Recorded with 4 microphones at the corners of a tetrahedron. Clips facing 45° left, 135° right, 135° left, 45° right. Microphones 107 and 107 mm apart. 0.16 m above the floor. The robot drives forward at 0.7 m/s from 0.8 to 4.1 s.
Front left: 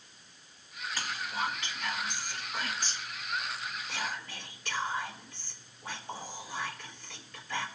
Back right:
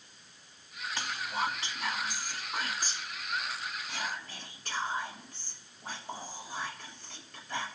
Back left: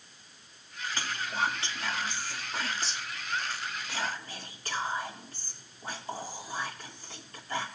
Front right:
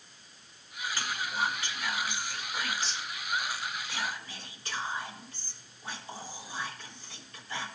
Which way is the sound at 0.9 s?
175° right.